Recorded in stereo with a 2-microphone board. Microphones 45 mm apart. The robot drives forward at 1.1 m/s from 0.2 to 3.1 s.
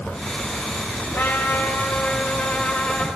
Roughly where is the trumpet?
Left.